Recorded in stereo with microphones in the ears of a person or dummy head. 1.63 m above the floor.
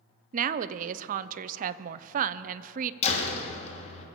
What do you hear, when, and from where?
0.3 s a woman speaking: 55° right (ahead or behind), 0.6 m
3.0 s a door slam: 35° left (ahead or behind), 2.5 m